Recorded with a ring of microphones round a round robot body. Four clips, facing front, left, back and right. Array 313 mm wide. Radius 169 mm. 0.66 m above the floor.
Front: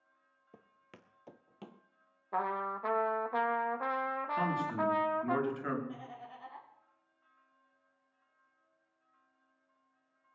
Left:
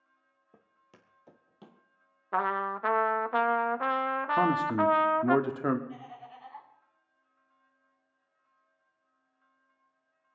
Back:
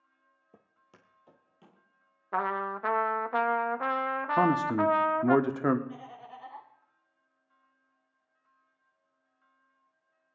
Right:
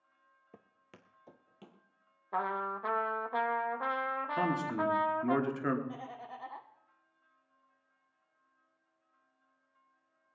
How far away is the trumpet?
About 0.9 m.